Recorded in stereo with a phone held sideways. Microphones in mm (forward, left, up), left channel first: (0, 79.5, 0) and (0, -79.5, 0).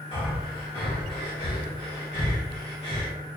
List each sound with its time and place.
0.1 s breathing: 35° left (ahead or behind), 1.5 m